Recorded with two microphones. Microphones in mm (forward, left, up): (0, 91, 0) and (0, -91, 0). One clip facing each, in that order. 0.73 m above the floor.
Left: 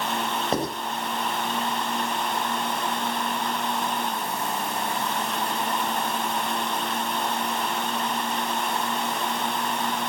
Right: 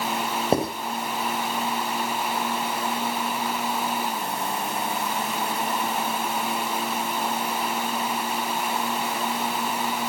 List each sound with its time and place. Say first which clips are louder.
0.5 s writing: right 4 dB; 25° right (ahead or behind), 4 m